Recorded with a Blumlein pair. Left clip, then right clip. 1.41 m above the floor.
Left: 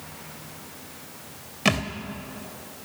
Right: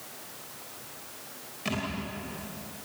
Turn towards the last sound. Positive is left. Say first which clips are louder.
# left 9 dB
turn(degrees=60)